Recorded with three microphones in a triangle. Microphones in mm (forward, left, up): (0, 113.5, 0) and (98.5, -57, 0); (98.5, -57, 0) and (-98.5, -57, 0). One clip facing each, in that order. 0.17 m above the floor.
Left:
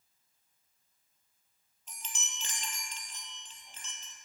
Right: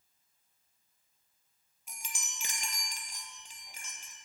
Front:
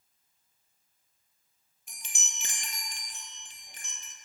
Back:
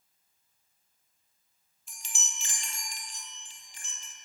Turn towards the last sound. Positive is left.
turn(degrees=20)